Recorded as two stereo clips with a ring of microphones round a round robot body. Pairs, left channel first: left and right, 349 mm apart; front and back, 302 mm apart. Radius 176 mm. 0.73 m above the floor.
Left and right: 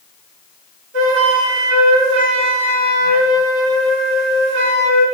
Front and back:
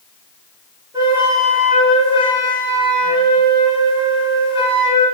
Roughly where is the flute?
Right.